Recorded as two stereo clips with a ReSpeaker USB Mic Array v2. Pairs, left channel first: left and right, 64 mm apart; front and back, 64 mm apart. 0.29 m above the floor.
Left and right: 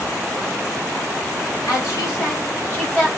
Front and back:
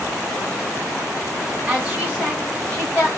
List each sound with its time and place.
1.7 s a woman speaking: 85° left, 1.9 m; by 3.1 s 15° left, 1.4 m